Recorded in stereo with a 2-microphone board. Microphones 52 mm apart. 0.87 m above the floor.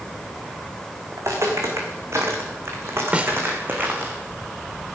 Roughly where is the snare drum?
Right.